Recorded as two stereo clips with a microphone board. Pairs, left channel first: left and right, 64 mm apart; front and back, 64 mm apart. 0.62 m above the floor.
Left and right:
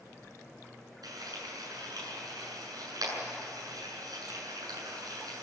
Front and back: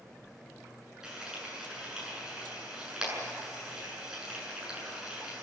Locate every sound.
1.0 s frying: 100° right, 8 m